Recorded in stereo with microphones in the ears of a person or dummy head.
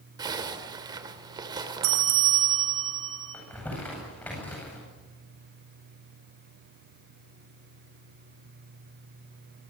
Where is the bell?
75° right (ahead or behind), 3 m.